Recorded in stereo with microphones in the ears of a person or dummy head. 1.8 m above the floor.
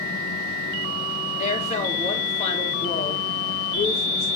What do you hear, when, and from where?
1.4 s a woman speaking: 40° left (ahead or behind), 2.5 m